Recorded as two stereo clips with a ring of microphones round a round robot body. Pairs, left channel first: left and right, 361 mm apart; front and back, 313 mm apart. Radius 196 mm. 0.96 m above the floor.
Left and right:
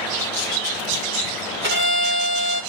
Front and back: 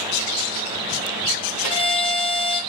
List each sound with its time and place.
1.6 s a violin: 30° right, 6.5 m